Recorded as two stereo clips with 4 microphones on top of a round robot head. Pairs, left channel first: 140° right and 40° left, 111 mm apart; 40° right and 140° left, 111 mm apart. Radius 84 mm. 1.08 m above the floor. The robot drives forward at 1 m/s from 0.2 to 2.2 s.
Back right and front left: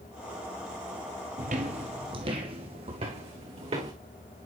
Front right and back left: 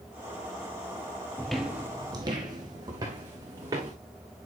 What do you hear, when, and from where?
1.4 s footsteps: 35° left, 1.3 m; by 3.9 s 80° left, 4.5 m